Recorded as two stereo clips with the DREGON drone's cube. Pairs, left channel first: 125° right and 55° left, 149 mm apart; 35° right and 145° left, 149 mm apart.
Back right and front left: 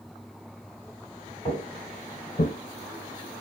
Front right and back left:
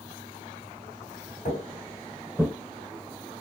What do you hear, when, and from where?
1.4 s footsteps: 70° right, 1.9 m; by 2.5 s 135° right, 0.8 m